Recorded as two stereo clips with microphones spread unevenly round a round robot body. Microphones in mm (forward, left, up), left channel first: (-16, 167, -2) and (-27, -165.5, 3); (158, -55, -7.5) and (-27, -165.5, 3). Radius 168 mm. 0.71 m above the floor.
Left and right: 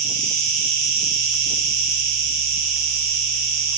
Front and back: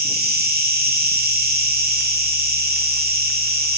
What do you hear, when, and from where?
0.0 s an insect: 100° right, 0.8 m